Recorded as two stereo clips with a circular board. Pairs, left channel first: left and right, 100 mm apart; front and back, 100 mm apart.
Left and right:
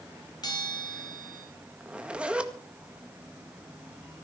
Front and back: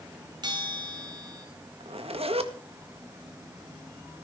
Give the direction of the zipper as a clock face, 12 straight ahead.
6 o'clock.